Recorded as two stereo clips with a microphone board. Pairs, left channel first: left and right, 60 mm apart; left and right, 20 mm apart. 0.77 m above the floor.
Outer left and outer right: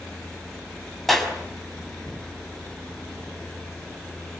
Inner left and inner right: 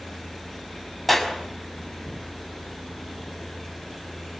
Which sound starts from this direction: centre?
A clap, at 1.1 s.